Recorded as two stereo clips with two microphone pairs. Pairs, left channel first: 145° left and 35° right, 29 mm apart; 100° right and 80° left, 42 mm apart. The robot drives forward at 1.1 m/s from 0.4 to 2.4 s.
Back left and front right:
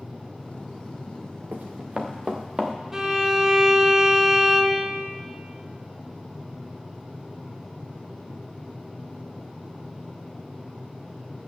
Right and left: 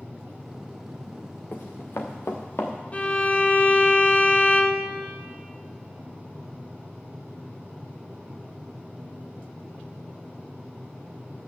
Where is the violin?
100° right, 1.1 m.